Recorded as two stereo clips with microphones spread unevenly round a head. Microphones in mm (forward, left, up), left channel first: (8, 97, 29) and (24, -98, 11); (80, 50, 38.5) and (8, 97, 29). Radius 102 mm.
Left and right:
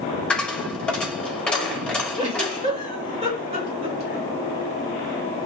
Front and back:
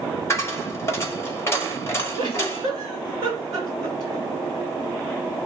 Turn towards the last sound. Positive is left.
turn(degrees=-145)